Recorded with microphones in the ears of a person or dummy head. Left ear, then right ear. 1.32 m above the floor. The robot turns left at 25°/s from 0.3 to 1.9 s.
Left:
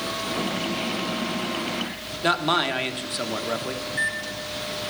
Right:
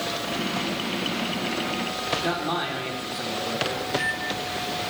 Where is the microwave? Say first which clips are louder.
Right 1 dB; 65° left (ahead or behind), 2.5 m.